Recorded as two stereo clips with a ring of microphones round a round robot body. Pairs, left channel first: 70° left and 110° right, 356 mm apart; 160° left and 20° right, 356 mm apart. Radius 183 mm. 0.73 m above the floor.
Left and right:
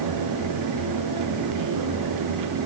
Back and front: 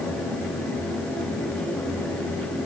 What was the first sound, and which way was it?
Only background noise.